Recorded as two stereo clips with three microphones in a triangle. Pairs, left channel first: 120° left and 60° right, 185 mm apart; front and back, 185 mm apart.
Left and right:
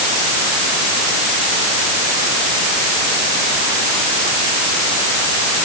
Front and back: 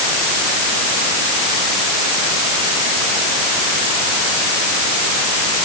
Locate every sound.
Only background noise.